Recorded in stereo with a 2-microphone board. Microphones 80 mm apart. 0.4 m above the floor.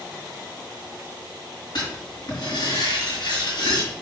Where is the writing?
65° left (ahead or behind), 5 m.